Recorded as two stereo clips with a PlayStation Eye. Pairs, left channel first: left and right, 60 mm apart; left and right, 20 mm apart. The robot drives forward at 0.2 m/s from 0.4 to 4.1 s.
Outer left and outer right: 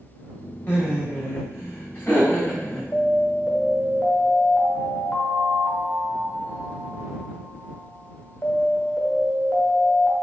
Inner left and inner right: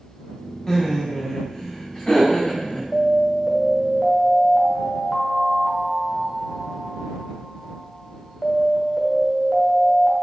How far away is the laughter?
About 1.3 m.